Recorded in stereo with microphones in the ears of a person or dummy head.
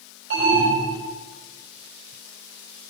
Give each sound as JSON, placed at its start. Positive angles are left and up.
{"t": 0.3, "sound": "an alarm", "side_deg": -55, "distance_m": 5.0}